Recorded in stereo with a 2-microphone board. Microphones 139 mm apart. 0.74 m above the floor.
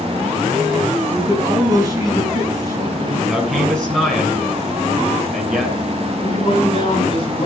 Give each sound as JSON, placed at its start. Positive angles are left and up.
{"t": 1.1, "sound": "a man speaking", "side_deg": -25, "distance_m": 6.0}
{"t": 3.3, "sound": "a man speaking", "side_deg": 0, "distance_m": 8.5}
{"t": 6.1, "sound": "a man speaking", "side_deg": 40, "distance_m": 4.5}